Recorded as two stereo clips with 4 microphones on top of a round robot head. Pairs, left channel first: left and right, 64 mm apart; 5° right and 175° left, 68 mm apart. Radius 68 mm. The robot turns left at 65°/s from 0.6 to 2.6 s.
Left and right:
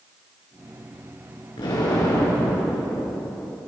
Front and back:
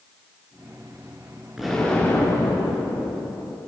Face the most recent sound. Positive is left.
turn(degrees=25)